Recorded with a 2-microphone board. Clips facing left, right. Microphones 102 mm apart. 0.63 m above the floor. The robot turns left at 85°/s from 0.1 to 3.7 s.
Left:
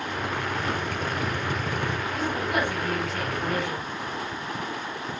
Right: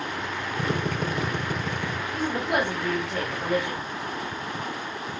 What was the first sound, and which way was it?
A drill, 95° right.